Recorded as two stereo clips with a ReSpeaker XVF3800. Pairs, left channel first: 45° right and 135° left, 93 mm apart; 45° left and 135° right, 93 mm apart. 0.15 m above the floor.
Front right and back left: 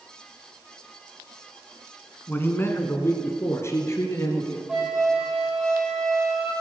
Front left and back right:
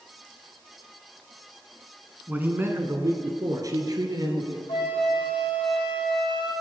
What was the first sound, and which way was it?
A man speaking, 85° right.